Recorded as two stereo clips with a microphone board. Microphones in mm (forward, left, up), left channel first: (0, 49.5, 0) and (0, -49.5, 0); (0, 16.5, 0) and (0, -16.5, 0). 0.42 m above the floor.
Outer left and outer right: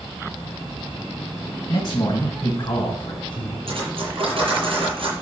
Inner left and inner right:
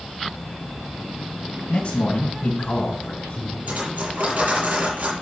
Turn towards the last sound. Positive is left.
turn(degrees=-60)  # may be behind; listen again after turning